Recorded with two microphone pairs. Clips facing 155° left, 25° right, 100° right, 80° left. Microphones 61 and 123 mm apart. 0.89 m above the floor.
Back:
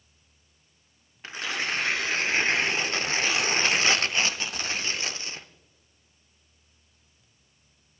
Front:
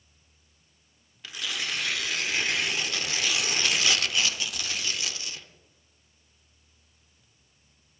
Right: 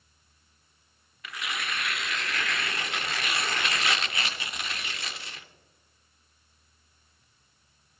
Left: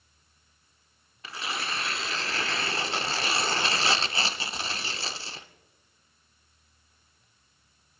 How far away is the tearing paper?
About 0.6 m.